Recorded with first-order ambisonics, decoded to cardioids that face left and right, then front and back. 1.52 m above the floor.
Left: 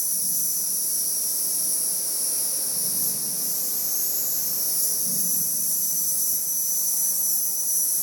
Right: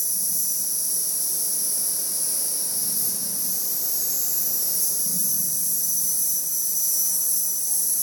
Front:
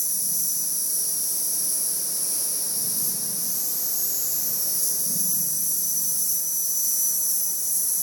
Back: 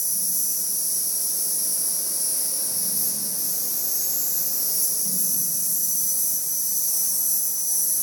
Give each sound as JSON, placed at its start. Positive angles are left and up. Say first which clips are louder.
{"t": 0.0, "sound": "an insect", "louder": "even, even", "azimuth_deg": -140, "distance_m": 1.6}